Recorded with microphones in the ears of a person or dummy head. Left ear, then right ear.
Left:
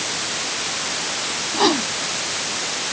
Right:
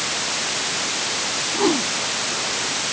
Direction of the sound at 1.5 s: 40° left (ahead or behind).